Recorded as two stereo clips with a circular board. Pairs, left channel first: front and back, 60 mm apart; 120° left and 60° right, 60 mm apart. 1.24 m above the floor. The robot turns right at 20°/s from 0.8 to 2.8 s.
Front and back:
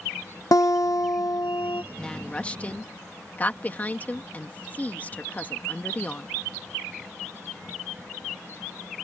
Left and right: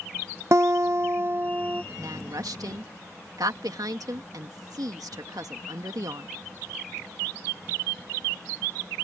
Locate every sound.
0.5 s a guitar: 20° right; by 1.8 s straight ahead
2.0 s a woman speaking: 75° right; by 6.3 s 60° right